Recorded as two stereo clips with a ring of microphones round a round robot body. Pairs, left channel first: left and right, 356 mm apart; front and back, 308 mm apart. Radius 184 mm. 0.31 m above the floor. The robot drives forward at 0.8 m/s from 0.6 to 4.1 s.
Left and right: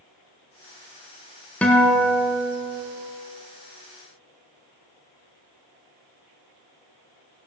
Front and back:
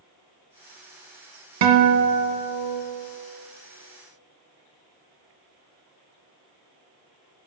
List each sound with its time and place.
1.6 s a guitar: 175° left, 1.0 m; by 2.8 s straight behind, 1.9 m